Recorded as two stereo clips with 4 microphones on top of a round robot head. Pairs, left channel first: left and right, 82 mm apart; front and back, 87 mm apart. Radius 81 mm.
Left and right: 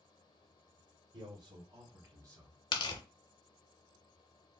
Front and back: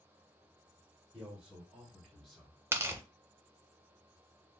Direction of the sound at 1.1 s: 100° right.